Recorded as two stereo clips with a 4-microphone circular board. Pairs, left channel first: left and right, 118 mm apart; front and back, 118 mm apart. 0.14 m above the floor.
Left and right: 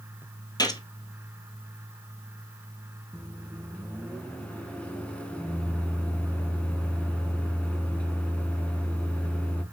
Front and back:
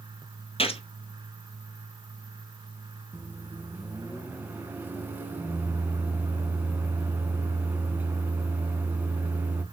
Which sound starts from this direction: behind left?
A microwave, at 3.1 s.